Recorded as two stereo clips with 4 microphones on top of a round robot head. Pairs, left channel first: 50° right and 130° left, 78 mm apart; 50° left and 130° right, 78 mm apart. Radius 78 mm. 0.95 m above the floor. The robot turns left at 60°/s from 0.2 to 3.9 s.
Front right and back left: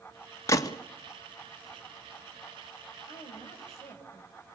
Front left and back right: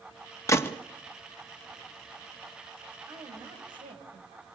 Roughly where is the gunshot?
Ahead.